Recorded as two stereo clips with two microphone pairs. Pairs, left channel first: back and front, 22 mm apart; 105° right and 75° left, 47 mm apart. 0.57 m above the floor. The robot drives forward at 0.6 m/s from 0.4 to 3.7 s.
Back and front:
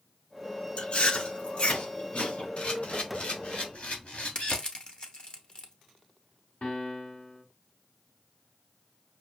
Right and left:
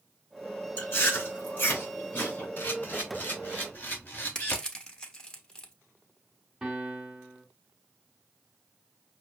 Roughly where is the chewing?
Behind right.